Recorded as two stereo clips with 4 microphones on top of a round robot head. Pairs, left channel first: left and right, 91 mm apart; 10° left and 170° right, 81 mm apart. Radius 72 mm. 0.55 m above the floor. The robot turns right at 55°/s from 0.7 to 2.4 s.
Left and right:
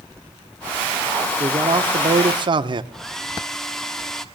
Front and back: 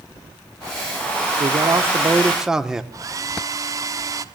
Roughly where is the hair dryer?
Behind.